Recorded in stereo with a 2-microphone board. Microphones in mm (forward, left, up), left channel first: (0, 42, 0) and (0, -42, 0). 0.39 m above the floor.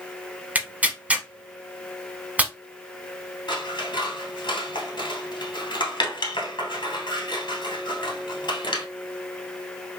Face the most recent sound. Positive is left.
turn(degrees=65)  # may be behind; listen again after turning